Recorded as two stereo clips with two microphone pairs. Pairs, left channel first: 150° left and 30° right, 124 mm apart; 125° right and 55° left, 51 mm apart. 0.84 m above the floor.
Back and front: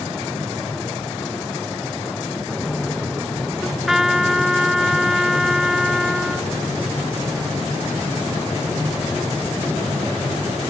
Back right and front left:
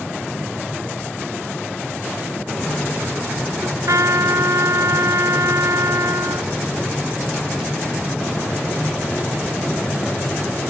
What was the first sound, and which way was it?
A trumpet, 55° left.